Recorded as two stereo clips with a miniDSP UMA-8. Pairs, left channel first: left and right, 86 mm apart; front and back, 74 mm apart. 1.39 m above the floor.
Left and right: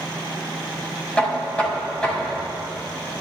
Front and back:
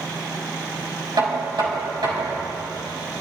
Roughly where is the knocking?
Behind.